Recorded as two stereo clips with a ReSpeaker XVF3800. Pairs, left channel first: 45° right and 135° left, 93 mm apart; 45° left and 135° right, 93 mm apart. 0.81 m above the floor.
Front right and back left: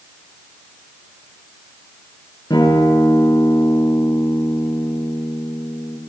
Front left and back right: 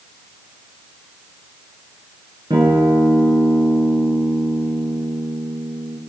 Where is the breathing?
No breathing in this recording.